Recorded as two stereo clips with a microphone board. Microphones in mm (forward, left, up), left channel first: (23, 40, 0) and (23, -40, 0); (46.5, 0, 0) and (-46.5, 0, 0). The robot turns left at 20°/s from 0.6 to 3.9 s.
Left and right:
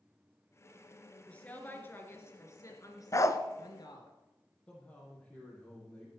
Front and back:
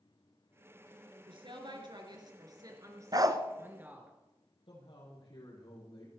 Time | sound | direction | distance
1.3 | a woman speaking | 165° left | 3.5 m
3.1 | a dog barking | 140° left | 0.9 m
4.7 | a man speaking | 15° left | 8.5 m